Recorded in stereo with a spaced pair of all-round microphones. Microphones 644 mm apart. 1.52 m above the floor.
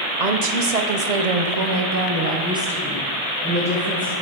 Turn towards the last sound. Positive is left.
turn(degrees=15)  # may be behind; listen again after turning